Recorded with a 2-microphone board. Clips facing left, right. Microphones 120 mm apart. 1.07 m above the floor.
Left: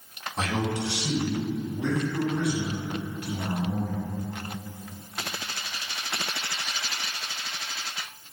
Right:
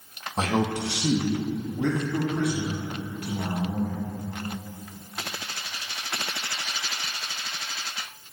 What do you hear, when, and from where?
0.4 s a man speaking: 30° right (ahead or behind), 0.9 m; by 4.0 s 45° right (ahead or behind), 3.5 m